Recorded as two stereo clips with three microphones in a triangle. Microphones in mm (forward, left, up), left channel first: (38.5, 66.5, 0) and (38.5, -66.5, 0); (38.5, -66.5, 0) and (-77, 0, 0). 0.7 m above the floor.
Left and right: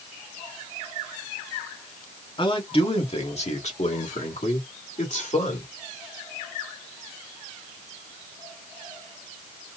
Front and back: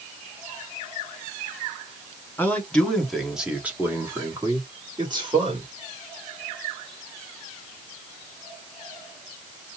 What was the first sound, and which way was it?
A man speaking, 45° left.